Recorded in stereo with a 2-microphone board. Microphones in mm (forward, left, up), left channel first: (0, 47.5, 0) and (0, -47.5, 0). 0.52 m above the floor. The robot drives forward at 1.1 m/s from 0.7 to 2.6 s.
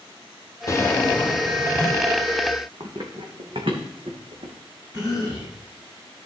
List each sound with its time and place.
0.7 s a drawer: 30° left (ahead or behind), 0.6 m; by 2.1 s 10° left (ahead or behind), 2.0 m
2.8 s running footsteps: 45° right (ahead or behind), 1.7 m; by 4.5 s 70° right (ahead or behind), 2 m
4.9 s a cough: 40° right (ahead or behind), 5 m